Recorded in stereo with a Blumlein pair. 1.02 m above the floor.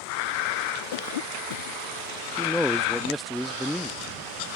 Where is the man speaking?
Straight ahead.